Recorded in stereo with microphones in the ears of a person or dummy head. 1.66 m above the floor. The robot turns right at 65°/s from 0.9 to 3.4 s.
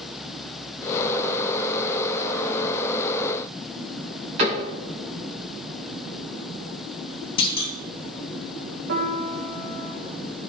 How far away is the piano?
About 2 m.